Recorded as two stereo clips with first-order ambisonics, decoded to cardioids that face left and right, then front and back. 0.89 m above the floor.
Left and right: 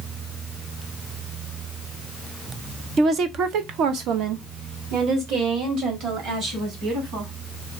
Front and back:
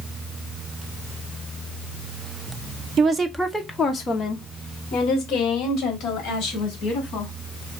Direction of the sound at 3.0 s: 135° right.